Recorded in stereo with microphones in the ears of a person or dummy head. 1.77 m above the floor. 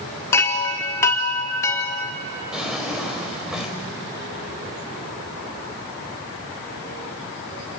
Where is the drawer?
5° right (ahead or behind), 3.5 m.